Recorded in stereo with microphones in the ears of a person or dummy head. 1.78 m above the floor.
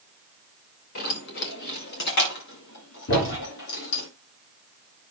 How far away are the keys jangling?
About 1.4 m.